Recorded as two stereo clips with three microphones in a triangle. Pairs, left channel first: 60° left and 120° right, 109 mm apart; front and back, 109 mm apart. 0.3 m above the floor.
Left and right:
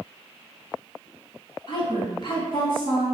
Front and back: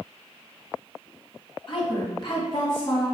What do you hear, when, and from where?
1.7 s a woman speaking: 25° left, 3 m